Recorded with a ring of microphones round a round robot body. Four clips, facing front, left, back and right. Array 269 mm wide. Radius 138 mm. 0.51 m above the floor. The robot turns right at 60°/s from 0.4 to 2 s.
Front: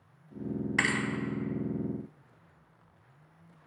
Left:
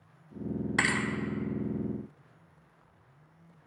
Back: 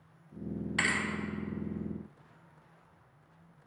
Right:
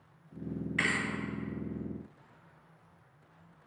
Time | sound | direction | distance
0.8 | a thud | 80° left | 0.8 m